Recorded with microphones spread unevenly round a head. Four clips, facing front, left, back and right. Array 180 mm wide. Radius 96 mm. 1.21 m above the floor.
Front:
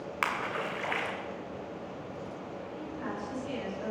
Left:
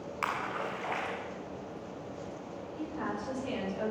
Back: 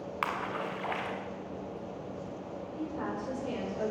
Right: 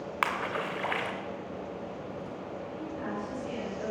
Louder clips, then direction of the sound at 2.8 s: Left 1 dB, back 3 dB; 160° left.